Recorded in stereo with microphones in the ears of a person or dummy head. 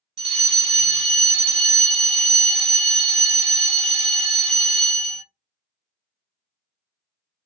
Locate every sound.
0.2 s a fire alarm: 30° right (ahead or behind), 1.3 m